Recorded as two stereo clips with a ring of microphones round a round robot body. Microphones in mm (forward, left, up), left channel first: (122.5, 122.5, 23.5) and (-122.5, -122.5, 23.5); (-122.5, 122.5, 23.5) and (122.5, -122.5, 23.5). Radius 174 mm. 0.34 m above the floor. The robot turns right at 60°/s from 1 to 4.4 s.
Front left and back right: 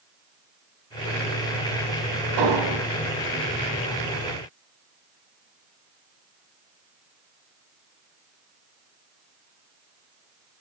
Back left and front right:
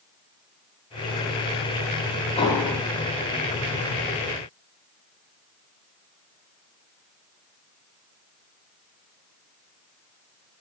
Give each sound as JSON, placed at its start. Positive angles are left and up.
{"t": 2.4, "sound": "an explosion", "azimuth_deg": -150, "distance_m": 1.6}